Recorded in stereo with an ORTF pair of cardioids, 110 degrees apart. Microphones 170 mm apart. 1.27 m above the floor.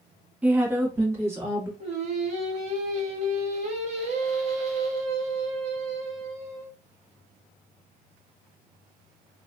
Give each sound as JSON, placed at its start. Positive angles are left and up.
{"t": 0.4, "sound": "a woman speaking", "azimuth_deg": -10, "distance_m": 0.7}
{"t": 1.8, "sound": "singing", "azimuth_deg": -45, "distance_m": 1.4}